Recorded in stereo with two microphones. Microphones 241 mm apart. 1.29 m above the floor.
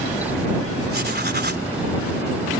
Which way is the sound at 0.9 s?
45° right (ahead or behind).